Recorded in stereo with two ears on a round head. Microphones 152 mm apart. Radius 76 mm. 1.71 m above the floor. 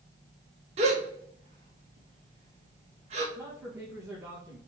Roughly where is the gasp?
Right.